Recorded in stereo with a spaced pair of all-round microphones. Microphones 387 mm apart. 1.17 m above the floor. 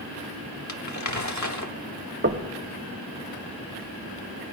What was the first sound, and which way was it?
Crumpling, 45° left (ahead or behind).